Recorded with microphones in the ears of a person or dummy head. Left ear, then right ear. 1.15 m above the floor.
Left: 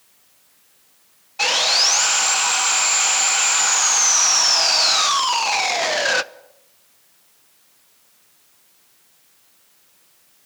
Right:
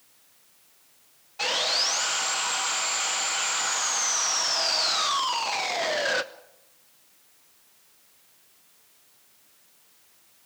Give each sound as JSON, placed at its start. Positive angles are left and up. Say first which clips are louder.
{"t": 1.4, "sound": "sawing", "louder": "left 8 dB", "side_deg": 15, "distance_m": 0.5}